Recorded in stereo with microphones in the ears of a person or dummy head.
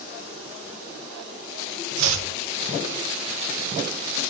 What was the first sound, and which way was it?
Chopping, 80° right.